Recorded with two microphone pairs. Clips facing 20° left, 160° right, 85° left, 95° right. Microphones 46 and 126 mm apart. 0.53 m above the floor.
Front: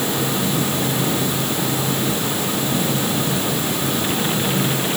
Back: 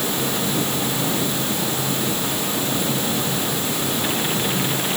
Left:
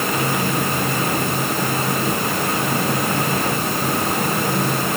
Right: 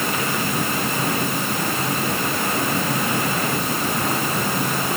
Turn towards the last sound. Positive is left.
No sound to turn to.